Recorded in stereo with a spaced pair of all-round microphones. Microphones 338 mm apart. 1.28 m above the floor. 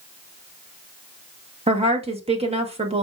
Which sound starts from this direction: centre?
A woman speaking, at 1.7 s.